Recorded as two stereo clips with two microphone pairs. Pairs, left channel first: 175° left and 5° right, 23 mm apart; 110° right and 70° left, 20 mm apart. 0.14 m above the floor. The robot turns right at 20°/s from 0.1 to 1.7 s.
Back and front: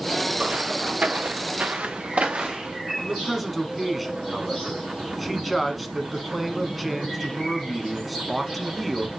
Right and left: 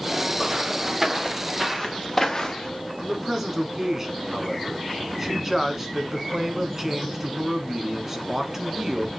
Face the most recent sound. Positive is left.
turn(degrees=80)